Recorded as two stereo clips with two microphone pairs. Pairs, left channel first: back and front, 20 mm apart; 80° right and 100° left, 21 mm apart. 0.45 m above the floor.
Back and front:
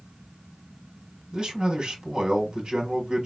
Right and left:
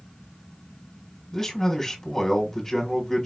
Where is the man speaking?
25° right, 1.5 m.